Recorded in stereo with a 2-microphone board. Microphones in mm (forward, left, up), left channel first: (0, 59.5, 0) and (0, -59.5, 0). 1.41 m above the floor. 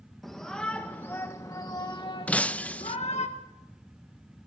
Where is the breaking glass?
10° left (ahead or behind), 0.6 m.